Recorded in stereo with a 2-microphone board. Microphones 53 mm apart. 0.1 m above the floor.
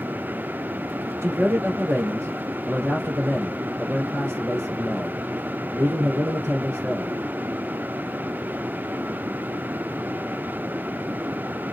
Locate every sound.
1.2 s a man speaking: 65° right (ahead or behind), 3 m